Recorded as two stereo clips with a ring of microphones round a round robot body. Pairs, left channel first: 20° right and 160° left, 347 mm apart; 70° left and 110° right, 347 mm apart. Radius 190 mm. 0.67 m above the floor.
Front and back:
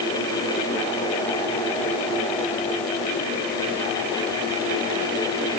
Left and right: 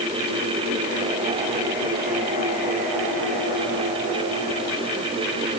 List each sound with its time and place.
Only background noise.